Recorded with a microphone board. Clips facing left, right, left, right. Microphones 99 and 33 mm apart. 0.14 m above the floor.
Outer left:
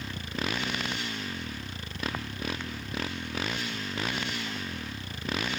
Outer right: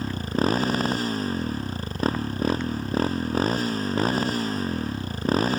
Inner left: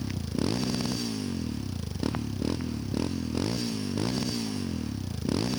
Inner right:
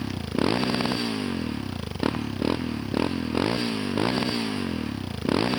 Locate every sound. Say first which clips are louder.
0.0 s a motorcycle: outer right 10 dB, inner right 5 dB; 40° right (ahead or behind)